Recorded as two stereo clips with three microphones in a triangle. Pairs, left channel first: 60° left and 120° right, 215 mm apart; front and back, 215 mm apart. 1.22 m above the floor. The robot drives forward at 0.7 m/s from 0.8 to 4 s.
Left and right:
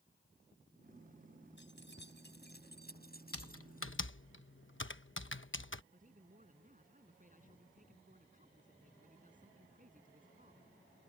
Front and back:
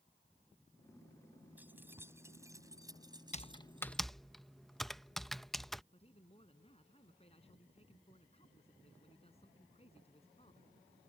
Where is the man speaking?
65° right.